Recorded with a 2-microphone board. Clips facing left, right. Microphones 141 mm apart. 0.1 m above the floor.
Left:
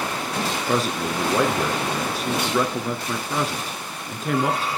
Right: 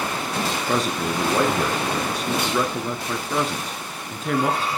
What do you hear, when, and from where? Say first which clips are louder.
0.7 s a man speaking: left 1 dB; centre (ahead or behind), 1.1 m